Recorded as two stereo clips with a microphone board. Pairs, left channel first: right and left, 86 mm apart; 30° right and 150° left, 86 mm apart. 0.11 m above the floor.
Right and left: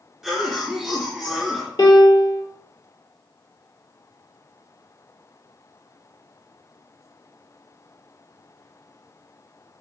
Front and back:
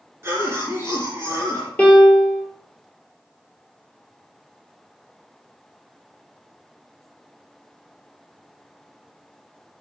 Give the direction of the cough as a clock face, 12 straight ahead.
6 o'clock.